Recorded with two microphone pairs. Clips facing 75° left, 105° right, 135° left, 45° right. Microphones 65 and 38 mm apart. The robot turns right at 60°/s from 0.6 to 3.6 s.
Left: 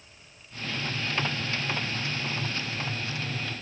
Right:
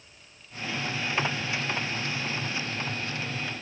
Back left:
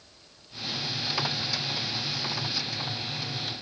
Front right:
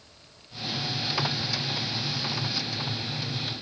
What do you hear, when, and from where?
Only background noise.